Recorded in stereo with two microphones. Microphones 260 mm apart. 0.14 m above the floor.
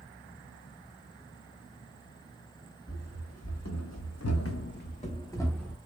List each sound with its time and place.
2.9 s running footsteps: 65° left (ahead or behind), 1.0 m; by 5.8 s centre (ahead or behind), 0.7 m